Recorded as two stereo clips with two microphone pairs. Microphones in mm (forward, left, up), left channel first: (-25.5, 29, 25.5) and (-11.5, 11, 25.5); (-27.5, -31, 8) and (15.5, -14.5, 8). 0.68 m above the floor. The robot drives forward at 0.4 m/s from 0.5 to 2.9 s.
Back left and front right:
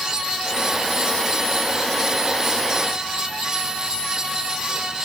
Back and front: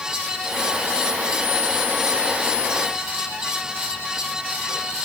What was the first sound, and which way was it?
Only background noise.